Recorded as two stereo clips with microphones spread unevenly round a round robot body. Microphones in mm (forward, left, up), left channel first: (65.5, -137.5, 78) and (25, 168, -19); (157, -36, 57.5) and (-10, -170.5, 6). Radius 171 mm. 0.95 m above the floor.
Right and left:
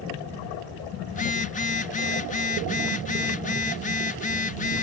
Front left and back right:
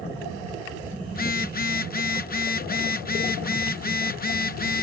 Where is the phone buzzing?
15° right.